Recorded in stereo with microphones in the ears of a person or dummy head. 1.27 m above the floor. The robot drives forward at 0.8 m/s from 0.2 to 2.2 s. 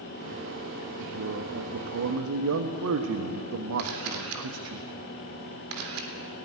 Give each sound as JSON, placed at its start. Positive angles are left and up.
{"t": 1.0, "sound": "a man speaking", "side_deg": -65, "distance_m": 1.4}
{"t": 3.8, "sound": "a camera shutter", "side_deg": -80, "distance_m": 3.5}